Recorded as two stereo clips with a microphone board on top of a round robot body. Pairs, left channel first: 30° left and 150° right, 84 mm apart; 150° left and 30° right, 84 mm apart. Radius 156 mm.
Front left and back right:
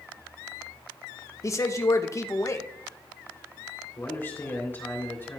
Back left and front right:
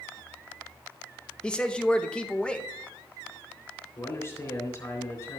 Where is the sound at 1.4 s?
75° left, 0.9 m.